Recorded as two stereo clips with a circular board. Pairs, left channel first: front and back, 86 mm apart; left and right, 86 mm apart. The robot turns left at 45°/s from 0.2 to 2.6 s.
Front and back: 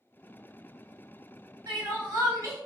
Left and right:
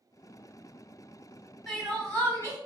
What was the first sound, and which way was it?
Crying, straight behind.